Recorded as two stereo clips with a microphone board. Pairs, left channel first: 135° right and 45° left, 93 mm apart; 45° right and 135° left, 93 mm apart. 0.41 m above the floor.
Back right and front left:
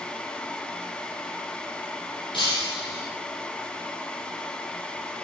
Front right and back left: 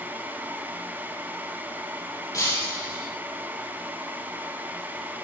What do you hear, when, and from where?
2.3 s breaking glass: 100° right, 6 m